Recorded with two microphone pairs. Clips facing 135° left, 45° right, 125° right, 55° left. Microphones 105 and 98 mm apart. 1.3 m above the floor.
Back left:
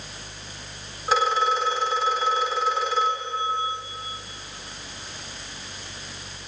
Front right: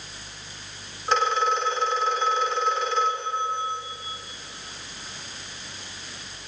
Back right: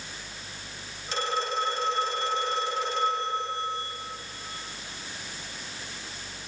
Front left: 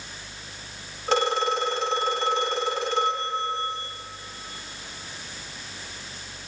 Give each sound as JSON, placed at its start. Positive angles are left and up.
{"t": 1.1, "sound": "a phone ringing", "azimuth_deg": 45, "distance_m": 2.5}